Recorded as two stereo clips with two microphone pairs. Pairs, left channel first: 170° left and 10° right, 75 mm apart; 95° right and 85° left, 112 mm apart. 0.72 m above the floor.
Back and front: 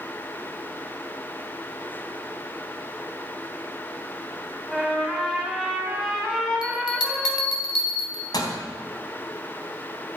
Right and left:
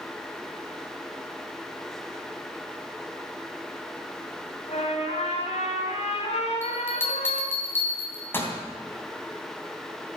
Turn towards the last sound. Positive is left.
turn(degrees=-165)